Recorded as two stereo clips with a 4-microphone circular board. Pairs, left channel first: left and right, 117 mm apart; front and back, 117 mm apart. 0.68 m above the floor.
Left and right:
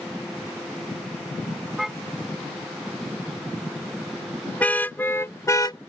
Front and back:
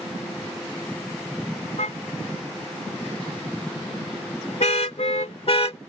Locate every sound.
1.8 s a car horn: 5° right; by 5.8 s 35° left